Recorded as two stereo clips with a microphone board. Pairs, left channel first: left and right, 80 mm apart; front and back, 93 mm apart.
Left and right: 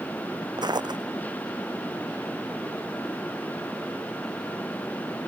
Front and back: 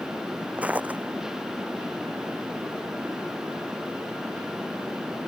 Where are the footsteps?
110° right.